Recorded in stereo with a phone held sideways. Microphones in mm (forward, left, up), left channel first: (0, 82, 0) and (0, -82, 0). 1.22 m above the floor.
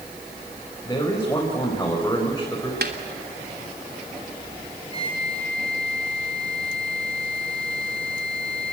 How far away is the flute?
About 4 m.